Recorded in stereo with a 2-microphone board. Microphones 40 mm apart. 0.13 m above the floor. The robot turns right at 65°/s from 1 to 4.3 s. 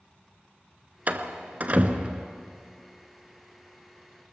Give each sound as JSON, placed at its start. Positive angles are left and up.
{"t": 1.1, "sound": "a door slam", "side_deg": -40, "distance_m": 1.0}